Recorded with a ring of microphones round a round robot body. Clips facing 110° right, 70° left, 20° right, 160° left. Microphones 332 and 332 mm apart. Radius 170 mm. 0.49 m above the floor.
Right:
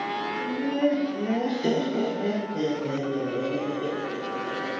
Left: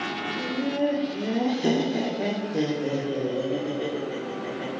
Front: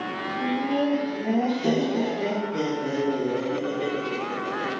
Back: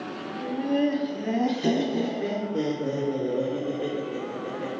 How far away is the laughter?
About 1.7 m.